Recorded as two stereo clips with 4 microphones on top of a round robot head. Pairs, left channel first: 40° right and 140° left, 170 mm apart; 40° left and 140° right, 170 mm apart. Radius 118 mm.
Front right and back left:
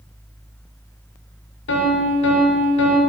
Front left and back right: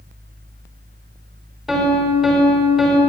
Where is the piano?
50° right, 5 m.